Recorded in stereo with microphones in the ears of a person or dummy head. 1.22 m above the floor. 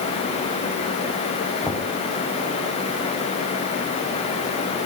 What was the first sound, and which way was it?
Knocking, 5° left (ahead or behind).